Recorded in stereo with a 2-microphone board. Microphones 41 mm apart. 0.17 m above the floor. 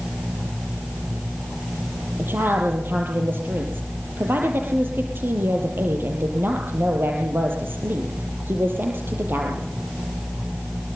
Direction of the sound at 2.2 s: 60° right (ahead or behind).